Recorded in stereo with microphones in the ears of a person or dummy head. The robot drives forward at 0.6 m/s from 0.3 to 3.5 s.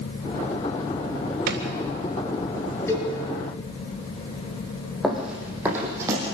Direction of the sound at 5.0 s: Centre (ahead or behind).